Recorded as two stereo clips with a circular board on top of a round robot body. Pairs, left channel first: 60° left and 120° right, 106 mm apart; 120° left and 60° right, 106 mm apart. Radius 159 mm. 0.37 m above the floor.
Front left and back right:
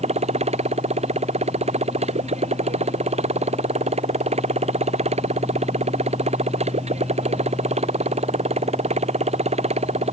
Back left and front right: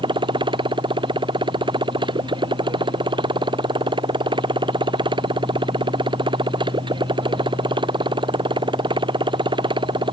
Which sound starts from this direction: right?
A motorcycle, at 0.0 s.